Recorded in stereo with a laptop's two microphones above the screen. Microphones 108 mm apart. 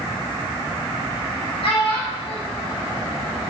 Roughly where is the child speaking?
Left.